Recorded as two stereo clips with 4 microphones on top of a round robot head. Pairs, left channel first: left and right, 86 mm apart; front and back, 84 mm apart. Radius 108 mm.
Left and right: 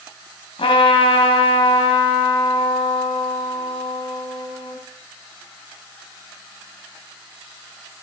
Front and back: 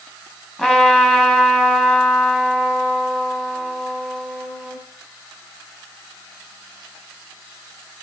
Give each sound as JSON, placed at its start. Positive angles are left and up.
{"t": 0.6, "sound": "a trumpet", "azimuth_deg": 80, "distance_m": 3.0}